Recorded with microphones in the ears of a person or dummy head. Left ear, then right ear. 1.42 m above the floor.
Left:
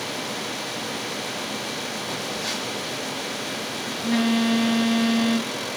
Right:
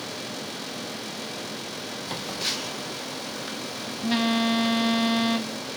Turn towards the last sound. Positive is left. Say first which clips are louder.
# right 2 dB
turn(degrees=-40)  # may be behind; listen again after turning